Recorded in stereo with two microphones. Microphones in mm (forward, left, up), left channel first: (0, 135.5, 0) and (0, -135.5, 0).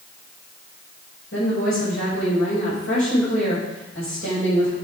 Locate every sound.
1.3 s a woman speaking: 50° left (ahead or behind), 6 m